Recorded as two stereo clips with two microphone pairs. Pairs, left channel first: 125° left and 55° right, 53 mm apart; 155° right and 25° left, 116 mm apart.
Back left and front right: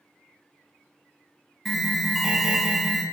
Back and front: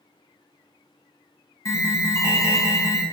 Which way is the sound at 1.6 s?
140° right.